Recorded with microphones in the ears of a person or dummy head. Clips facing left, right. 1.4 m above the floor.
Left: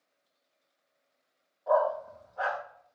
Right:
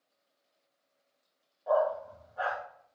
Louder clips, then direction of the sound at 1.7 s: Left 1 dB; 5° right (ahead or behind).